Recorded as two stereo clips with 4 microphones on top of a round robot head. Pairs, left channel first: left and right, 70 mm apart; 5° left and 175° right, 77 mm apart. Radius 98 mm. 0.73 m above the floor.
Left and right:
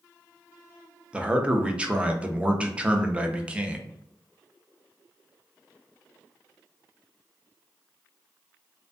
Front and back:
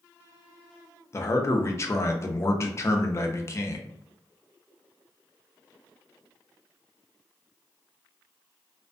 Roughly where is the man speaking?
Ahead.